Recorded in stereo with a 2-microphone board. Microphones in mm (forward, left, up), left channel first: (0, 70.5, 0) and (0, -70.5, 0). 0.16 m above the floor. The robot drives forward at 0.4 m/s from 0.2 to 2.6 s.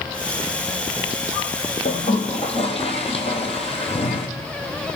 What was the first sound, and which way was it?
A toilet flushing, 55° left (ahead or behind).